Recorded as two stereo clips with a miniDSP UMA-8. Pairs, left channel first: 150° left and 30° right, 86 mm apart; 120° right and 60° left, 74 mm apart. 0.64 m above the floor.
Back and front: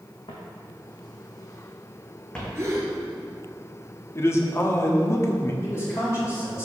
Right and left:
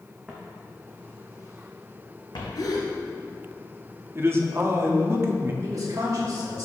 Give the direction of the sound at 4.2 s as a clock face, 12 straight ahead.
9 o'clock.